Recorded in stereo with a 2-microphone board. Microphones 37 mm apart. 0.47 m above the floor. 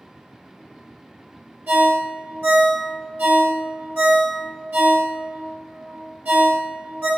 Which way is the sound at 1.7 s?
65° right (ahead or behind).